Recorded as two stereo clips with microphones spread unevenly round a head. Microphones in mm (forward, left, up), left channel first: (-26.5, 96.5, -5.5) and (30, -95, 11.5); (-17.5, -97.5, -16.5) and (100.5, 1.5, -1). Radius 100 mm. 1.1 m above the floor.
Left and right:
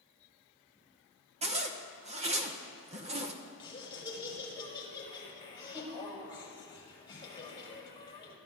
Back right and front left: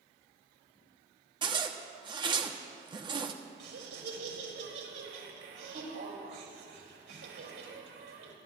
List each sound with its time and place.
1.4 s a zipper: 20° right, 1.0 m
3.6 s laughter: 35° left, 5 m